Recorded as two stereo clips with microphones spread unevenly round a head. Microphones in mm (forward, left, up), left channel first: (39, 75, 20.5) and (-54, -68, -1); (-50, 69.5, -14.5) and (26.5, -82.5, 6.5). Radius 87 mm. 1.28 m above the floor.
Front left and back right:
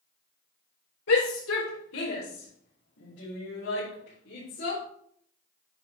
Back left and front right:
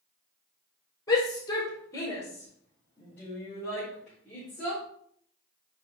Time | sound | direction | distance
1.1 | a shout | 45° left | 5 m